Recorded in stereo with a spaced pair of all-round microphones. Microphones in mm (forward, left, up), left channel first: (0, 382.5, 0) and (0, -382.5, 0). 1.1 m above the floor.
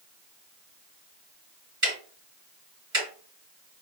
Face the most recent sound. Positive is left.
turn(degrees=-50)  # may be behind; listen again after turning